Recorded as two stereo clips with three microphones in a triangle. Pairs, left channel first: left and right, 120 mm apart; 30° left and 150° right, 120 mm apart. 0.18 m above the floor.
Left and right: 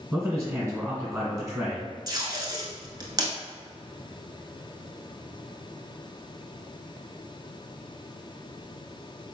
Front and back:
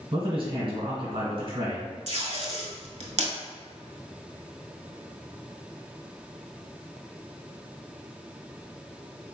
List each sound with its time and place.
0.1 s a man speaking: 155° right, 1.7 m
2.1 s tape being pulled: 145° right, 0.7 m